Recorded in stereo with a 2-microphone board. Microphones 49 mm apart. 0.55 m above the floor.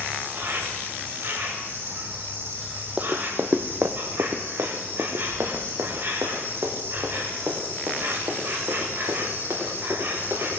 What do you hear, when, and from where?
0.0 s an insect: 55° right (ahead or behind), 2.5 m
3.0 s running footsteps: 25° right (ahead or behind), 0.9 m; by 10.5 s 70° right (ahead or behind), 6 m